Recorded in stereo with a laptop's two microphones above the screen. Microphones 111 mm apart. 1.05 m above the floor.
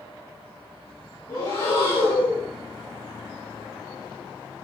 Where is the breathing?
30° left (ahead or behind), 2.0 m.